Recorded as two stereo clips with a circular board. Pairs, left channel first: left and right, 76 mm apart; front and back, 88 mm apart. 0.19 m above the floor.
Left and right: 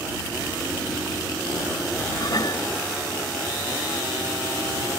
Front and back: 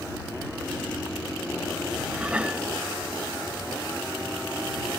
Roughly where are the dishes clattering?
Left.